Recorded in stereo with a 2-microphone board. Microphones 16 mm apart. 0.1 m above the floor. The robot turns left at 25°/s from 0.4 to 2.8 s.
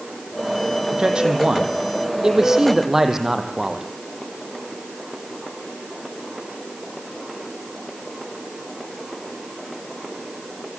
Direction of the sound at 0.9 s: 105° right.